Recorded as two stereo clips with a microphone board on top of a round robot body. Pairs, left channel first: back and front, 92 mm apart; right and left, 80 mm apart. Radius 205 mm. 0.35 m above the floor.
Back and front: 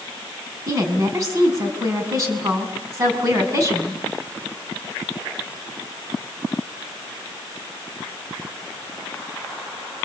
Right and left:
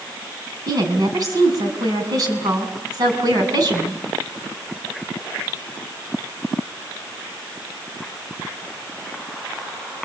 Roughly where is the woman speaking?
Ahead left.